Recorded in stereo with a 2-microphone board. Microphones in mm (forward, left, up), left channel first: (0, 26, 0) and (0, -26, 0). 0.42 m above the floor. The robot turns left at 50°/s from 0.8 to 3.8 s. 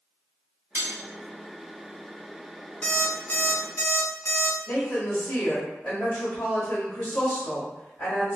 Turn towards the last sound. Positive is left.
turn(degrees=45)  # may be behind; listen again after turning